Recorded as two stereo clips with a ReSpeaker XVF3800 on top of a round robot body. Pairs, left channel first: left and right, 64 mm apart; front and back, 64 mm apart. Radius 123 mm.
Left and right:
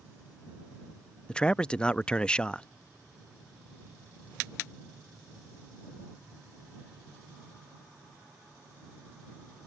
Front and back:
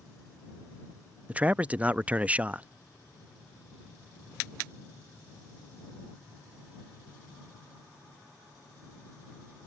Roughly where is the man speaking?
Behind left.